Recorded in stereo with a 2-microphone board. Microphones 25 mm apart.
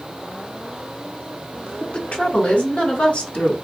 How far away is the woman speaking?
About 2.5 m.